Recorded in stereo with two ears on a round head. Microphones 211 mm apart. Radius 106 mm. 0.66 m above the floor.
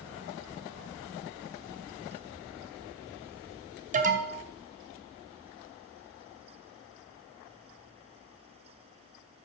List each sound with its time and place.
3.9 s an alarm: 35° right (ahead or behind), 1.0 m